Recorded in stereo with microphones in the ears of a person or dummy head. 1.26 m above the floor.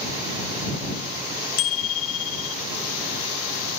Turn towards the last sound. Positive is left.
turn(degrees=80)